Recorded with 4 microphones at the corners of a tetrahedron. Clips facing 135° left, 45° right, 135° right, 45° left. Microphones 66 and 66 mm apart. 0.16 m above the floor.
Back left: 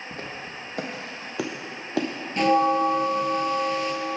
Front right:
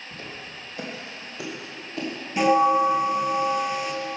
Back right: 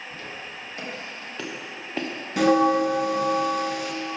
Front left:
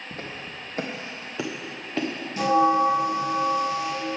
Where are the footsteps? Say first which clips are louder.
Back left 2 dB, front left 1 dB; 90° left, 2.0 m; by 2.1 s 140° left, 1.3 m.